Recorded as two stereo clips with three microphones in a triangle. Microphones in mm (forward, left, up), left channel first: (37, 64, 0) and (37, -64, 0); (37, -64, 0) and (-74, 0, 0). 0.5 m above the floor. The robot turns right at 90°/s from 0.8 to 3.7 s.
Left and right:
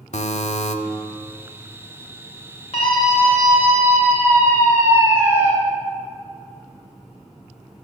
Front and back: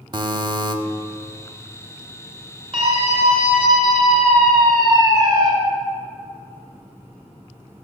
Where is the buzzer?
100° left, 0.5 m.